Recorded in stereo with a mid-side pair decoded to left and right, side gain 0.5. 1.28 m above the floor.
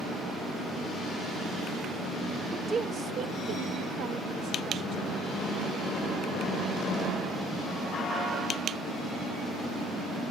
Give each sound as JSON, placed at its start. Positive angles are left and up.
{"t": 2.5, "sound": "a woman speaking", "azimuth_deg": -35, "distance_m": 1.2}